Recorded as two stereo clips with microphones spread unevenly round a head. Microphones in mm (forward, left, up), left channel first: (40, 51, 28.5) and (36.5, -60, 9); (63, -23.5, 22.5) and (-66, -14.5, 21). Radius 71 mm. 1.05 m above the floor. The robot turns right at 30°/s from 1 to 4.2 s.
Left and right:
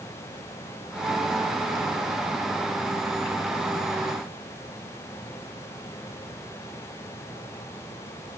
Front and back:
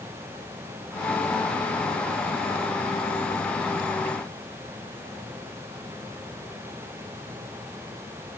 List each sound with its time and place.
Only background noise.